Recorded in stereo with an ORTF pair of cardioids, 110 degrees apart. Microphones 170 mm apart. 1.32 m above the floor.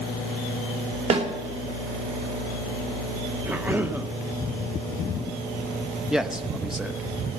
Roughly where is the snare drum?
Ahead right.